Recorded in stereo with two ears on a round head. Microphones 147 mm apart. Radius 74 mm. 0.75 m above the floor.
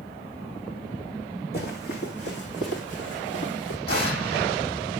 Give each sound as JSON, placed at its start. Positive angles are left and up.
{"t": 1.5, "sound": "running footsteps", "side_deg": 65, "distance_m": 3.0}
{"t": 3.9, "sound": "an explosion", "side_deg": 65, "distance_m": 7.0}